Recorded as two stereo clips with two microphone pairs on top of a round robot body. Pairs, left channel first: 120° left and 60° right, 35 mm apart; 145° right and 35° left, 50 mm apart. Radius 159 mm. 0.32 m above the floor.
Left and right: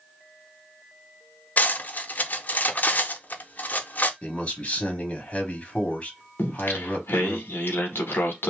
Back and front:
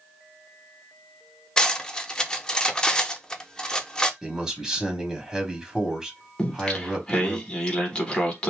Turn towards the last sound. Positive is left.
turn(degrees=140)